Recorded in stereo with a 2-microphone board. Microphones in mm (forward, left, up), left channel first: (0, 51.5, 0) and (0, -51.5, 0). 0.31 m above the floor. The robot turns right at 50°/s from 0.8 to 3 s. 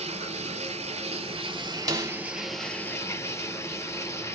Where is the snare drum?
35° right (ahead or behind), 0.9 m; by 2.1 s 40° right (ahead or behind), 0.9 m.